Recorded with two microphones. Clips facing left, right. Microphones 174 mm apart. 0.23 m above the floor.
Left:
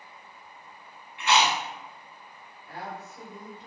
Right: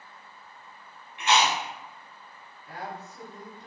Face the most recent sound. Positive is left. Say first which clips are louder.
# even
turn(degrees=-40)  # may be behind; listen again after turning